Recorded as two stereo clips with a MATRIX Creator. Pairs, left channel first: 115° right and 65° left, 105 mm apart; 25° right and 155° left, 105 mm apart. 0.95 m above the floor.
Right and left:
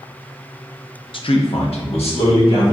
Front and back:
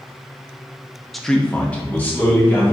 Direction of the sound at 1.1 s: 110° right.